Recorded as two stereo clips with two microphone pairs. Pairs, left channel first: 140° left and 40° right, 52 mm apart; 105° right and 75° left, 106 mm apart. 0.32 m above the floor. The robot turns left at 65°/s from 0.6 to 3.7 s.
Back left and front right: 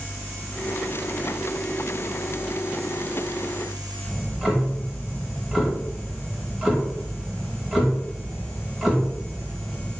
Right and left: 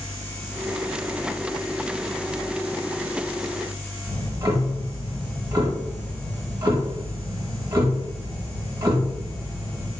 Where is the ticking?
40° left, 0.8 m.